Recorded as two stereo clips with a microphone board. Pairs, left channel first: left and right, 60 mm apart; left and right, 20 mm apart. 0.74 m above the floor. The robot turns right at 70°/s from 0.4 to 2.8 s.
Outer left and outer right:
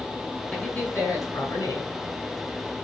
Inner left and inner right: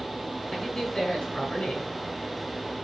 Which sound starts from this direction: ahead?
A man speaking, at 0.5 s.